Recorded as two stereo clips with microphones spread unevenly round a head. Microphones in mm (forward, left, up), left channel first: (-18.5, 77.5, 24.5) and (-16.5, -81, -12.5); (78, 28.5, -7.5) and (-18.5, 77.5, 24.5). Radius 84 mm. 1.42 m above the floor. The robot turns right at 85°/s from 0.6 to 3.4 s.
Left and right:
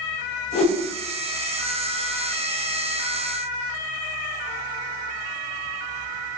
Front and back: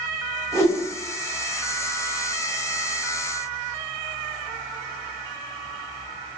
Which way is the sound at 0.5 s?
35° left.